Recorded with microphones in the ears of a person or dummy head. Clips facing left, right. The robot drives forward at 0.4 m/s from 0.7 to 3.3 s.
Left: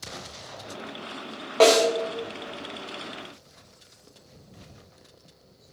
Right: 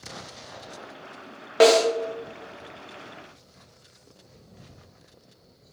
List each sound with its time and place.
1.6 s a snare drum: 15° right (ahead or behind), 0.8 m